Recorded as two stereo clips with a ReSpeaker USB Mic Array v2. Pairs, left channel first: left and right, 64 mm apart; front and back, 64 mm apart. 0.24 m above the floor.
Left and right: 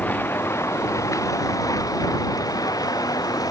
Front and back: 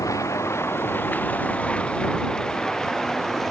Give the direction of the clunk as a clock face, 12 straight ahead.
No clunk in this recording.